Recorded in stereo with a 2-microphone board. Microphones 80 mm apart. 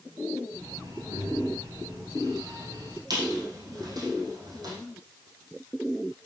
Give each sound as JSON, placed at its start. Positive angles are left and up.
{"t": 0.5, "sound": "breathing", "side_deg": -70, "distance_m": 10.0}
{"t": 3.1, "sound": "a squeak", "side_deg": -55, "distance_m": 5.5}